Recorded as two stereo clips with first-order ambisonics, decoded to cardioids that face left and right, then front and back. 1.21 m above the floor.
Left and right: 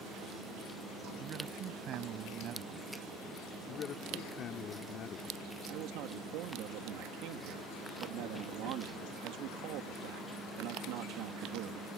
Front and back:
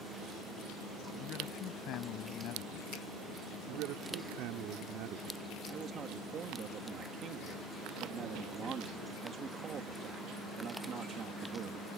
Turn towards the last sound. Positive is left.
turn(degrees=-115)